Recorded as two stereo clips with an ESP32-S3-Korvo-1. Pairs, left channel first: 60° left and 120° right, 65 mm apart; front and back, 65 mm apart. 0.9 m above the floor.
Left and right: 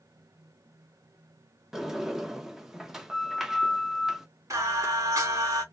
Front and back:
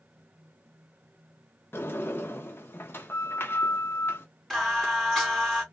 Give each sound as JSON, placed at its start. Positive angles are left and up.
{"t": 1.7, "sound": "a sliding door", "azimuth_deg": -40, "distance_m": 0.9}
{"t": 4.5, "sound": "singing", "azimuth_deg": -85, "distance_m": 2.0}